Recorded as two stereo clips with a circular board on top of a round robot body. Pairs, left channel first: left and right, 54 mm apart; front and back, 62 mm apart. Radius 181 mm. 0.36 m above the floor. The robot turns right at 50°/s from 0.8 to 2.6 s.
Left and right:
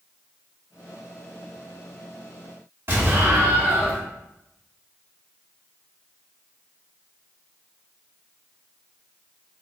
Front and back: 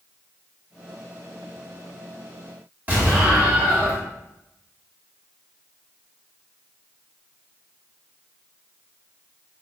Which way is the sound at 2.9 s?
120° right.